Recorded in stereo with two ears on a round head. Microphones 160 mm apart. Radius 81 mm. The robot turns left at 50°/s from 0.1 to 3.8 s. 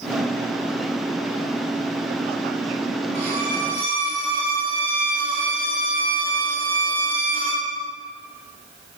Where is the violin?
115° right, 5 m; by 7.7 s 150° right, 5 m.